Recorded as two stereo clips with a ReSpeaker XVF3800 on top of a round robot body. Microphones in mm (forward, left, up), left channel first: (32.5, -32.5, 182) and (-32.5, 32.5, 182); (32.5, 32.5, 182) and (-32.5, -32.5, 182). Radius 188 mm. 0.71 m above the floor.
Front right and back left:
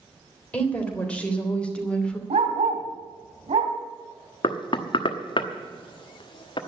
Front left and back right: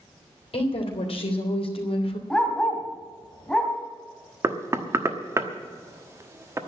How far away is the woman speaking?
About 3.5 m.